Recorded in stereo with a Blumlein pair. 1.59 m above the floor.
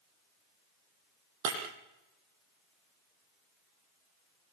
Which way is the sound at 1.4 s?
45° right.